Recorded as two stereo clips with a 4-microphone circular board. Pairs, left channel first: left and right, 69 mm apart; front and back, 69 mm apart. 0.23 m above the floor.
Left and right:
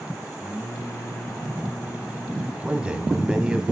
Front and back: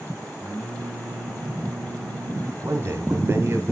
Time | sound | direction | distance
0.4 | singing | 80° left | 1.2 m
2.6 | a man speaking | 165° right | 1.2 m